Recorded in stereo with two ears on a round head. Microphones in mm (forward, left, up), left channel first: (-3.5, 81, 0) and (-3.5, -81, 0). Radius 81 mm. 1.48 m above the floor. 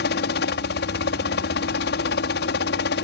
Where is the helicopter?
70° left (ahead or behind).